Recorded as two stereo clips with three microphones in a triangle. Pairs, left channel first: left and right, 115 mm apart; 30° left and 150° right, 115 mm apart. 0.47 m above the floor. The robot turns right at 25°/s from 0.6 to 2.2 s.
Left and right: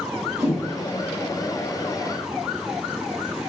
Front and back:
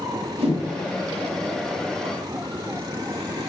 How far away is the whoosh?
About 1.7 m.